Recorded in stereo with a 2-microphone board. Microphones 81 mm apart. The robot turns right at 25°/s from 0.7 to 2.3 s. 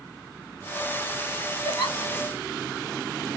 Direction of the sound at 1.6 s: 85° left.